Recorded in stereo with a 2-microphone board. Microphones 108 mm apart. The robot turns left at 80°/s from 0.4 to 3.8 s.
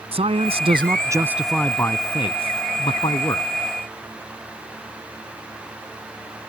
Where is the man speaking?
90° right; by 3.5 s 25° left.